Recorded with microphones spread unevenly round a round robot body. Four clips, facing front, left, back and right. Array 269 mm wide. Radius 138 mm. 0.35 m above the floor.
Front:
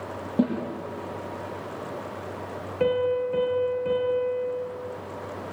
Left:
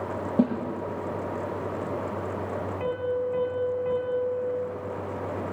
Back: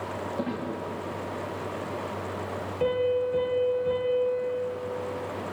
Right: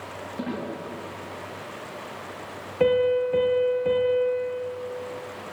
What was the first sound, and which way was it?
A snare drum, 45° left.